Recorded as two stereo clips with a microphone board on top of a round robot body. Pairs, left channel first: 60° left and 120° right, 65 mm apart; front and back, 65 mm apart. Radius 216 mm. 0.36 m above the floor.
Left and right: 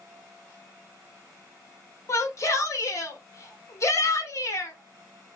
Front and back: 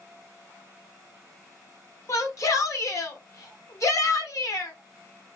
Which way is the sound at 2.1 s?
25° left.